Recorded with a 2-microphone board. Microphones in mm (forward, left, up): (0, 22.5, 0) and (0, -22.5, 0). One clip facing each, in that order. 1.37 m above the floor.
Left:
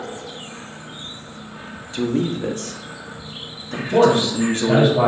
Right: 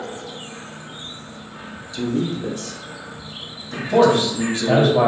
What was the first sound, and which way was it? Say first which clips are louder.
A man speaking: left 2 dB; 45° left (ahead or behind).